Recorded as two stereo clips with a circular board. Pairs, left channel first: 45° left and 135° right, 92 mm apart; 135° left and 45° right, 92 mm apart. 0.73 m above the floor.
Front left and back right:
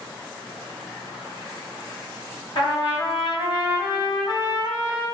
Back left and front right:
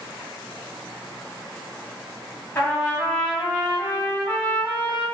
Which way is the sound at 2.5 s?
75° left.